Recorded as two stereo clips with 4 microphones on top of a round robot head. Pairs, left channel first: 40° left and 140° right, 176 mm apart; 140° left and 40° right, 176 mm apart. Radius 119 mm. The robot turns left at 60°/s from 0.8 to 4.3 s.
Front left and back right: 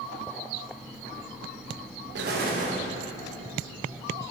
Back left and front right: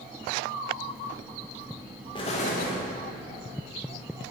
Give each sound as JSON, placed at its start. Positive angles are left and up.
{"t": 2.1, "sound": "an explosion", "azimuth_deg": -155, "distance_m": 1.5}